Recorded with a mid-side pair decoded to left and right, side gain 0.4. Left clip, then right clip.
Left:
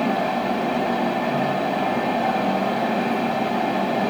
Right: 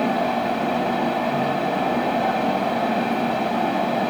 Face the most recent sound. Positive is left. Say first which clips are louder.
# right 1 dB
turn(degrees=0)